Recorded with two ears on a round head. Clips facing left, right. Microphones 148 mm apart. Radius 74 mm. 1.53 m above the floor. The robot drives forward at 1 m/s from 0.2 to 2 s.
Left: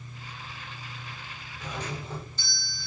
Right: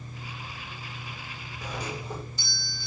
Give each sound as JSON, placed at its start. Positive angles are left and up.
{"t": 1.6, "sound": "a doorbell", "side_deg": -10, "distance_m": 8.0}